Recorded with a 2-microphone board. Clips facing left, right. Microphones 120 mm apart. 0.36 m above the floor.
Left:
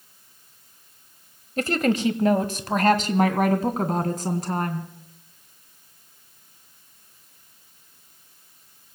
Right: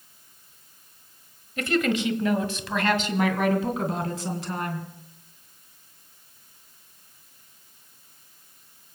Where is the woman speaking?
40° left (ahead or behind), 1.3 m; by 4.9 s 45° left (ahead or behind), 3 m.